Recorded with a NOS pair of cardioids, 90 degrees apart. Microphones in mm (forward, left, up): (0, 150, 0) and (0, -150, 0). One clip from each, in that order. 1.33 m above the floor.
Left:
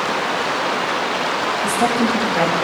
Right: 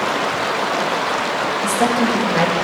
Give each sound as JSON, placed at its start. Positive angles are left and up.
{"t": 1.6, "sound": "a woman speaking", "azimuth_deg": -50, "distance_m": 7.0}